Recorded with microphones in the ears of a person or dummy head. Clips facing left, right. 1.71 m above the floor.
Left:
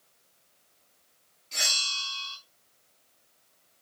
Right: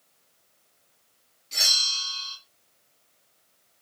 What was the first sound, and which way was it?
A bell, 20° right (ahead or behind).